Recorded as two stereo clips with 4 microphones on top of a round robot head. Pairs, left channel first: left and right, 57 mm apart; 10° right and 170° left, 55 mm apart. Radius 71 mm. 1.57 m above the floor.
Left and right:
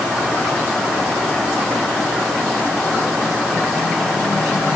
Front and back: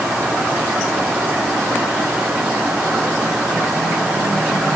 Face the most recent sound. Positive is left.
No sound to turn to.